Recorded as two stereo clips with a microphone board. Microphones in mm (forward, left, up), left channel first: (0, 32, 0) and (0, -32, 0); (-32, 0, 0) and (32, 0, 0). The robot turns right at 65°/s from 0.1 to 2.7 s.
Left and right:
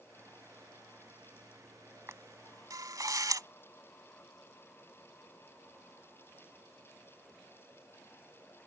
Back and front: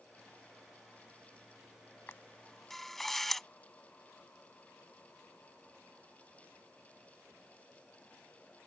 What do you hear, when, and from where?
2.1 s a camera shutter: 135° right; by 3.5 s 95° right